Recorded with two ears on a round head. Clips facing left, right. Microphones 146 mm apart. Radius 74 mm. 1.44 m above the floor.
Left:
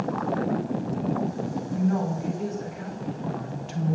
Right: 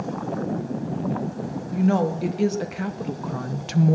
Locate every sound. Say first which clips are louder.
1.7 s a woman speaking: right 6 dB; 80° right, 2 m; by 4.0 s 60° right (ahead or behind), 0.9 m